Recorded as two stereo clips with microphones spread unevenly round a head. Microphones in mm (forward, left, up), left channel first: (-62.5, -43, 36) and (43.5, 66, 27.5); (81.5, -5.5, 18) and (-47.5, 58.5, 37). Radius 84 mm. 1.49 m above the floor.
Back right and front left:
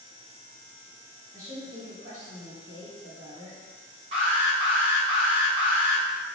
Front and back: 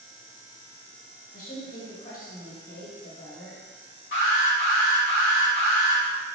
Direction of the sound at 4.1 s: 10° right.